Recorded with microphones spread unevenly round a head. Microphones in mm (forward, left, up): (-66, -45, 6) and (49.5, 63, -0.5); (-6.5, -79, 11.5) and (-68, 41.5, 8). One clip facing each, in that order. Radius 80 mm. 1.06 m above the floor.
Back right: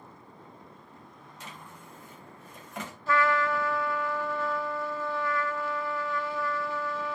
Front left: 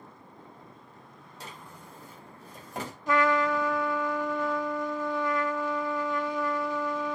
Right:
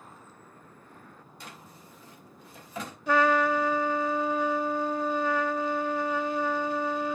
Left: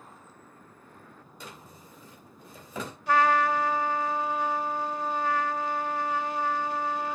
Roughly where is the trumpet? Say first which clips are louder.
Front left 2 dB, even; ahead right.